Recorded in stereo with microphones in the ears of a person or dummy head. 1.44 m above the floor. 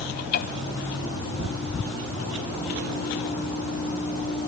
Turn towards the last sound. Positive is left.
turn(degrees=55)  # may be behind; listen again after turning